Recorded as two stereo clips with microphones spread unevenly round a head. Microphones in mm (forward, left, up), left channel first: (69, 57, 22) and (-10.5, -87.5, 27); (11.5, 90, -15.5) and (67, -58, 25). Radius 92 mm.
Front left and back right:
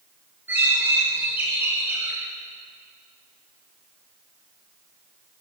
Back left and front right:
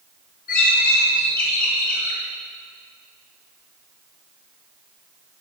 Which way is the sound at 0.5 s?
160° left.